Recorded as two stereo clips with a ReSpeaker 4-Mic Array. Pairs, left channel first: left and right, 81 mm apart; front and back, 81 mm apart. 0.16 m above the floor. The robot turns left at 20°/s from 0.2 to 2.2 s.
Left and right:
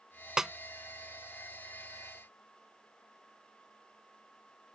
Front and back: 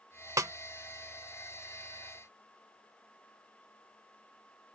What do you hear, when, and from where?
0.4 s a snare drum: 170° right; by 0.5 s 175° right